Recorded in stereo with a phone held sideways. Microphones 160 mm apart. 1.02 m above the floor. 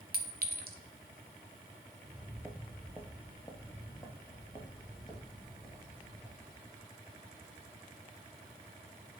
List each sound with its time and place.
0.1 s a clink: 70° right (ahead or behind), 0.6 m
2.0 s footsteps: 20° right (ahead or behind), 1.0 m; by 6.8 s 30° left (ahead or behind), 3.5 m